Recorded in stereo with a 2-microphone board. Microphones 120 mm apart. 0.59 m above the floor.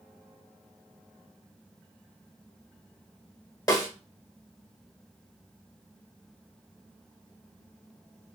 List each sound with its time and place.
3.7 s a snare drum: 30° left (ahead or behind), 1.1 m